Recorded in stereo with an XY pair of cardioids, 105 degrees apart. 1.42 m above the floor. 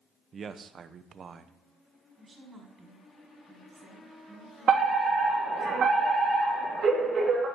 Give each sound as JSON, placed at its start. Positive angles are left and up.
{"t": 0.3, "sound": "a man speaking", "azimuth_deg": -45, "distance_m": 0.9}
{"t": 2.2, "sound": "a woman speaking", "azimuth_deg": -30, "distance_m": 5.0}
{"t": 4.7, "sound": "a fire alarm", "azimuth_deg": -65, "distance_m": 4.5}